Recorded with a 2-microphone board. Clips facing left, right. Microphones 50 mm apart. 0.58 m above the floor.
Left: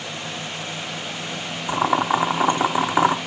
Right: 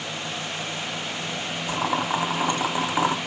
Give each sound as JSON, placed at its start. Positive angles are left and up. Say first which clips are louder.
{"t": 1.7, "sound": "boiling", "louder": "left 6 dB", "side_deg": 25, "distance_m": 0.6}